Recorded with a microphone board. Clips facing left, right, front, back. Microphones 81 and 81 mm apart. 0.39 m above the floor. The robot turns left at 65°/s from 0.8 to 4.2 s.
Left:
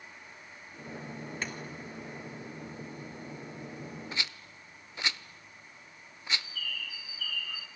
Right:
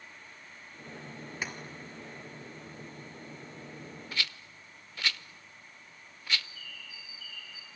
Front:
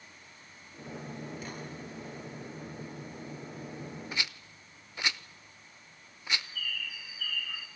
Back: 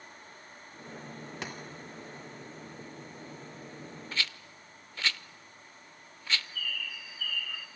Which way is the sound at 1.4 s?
170° right.